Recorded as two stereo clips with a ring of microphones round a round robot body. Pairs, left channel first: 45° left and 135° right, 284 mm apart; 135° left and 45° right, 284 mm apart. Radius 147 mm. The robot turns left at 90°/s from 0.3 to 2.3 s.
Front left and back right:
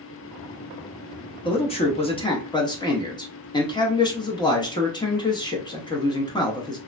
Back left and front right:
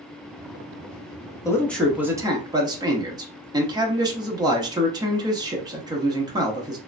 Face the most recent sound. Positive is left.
turn(degrees=0)